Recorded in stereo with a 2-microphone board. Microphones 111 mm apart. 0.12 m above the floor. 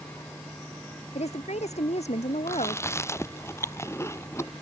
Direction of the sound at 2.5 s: 25° left (ahead or behind).